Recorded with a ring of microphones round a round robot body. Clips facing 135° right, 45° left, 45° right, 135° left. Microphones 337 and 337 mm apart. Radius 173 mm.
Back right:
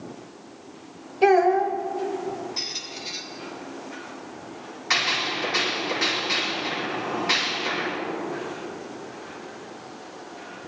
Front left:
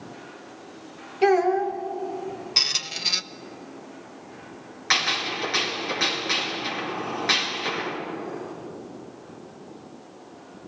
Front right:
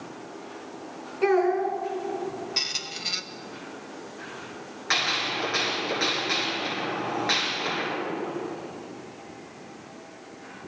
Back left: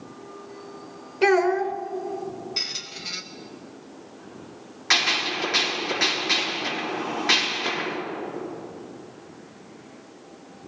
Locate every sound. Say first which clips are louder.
1.2 s a child speaking: back right 1 dB, back left 2 dB; 110° left, 1.1 m
2.6 s a squeak: back right 2 dB, front right 1 dB; 35° left, 0.5 m
4.9 s a gunshot: back right 1 dB, back left 3 dB; 60° left, 4.5 m